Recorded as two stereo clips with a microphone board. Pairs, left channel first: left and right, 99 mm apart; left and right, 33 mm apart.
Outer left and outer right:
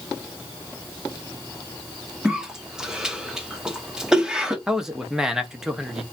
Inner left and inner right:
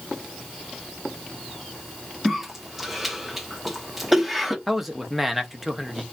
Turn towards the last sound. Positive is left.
turn(degrees=-5)  # may be behind; listen again after turning